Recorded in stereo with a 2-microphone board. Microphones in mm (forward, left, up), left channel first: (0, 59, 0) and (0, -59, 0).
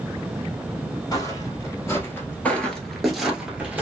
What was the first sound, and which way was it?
Footsteps, 30° left (ahead or behind).